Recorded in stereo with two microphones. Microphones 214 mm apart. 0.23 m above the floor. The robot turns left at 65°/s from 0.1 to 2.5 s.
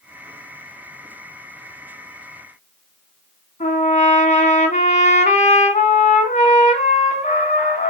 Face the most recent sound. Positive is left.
turn(degrees=35)  # may be behind; listen again after turning